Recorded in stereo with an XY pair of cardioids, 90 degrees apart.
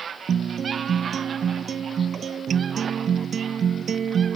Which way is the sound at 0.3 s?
55° right.